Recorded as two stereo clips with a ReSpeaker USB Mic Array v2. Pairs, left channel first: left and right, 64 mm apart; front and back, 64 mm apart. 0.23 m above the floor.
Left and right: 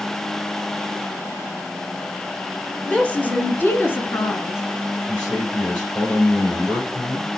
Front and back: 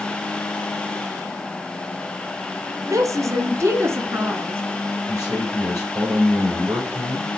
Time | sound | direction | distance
2.9 | a woman speaking | 160° left | 2.5 m
5.1 | a man speaking | 145° left | 6.5 m